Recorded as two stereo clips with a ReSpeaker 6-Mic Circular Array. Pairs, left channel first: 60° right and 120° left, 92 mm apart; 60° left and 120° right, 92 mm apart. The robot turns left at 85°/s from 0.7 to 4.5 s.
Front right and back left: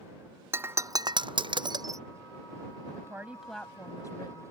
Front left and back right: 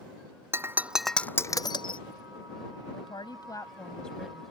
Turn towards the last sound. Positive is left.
turn(degrees=-55)